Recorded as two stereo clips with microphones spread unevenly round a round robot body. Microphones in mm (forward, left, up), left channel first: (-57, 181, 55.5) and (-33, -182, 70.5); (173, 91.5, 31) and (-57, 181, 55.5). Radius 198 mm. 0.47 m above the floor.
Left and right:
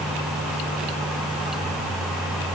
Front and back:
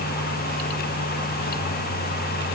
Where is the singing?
No singing in this recording.